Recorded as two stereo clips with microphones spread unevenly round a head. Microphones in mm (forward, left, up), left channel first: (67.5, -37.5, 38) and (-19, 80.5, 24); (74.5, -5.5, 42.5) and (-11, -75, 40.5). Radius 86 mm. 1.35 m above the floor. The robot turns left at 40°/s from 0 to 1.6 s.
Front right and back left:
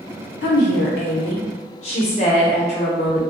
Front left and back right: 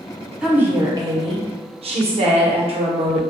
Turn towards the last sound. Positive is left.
turn(degrees=-110)